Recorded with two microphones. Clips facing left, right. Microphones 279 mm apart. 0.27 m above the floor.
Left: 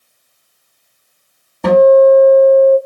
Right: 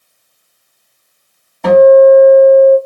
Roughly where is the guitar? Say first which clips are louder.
Right 3 dB; left.